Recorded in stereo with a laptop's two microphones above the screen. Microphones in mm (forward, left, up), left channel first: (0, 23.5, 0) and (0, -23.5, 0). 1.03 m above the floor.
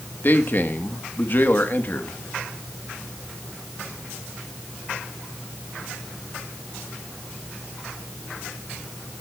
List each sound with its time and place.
0.2 s a man speaking: 45° left (ahead or behind), 1.3 m